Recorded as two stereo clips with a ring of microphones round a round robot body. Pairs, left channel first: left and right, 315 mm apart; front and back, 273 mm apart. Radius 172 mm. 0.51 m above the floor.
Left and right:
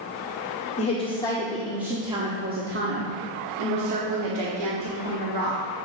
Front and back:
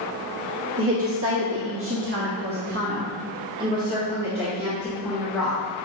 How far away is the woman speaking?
About 1.3 m.